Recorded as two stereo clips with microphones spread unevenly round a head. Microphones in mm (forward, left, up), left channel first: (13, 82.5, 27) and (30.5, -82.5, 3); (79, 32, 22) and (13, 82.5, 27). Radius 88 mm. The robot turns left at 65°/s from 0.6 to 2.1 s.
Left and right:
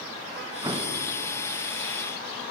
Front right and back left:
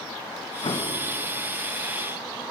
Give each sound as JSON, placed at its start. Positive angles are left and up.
{"t": 0.6, "sound": "an explosion", "azimuth_deg": -10, "distance_m": 2.0}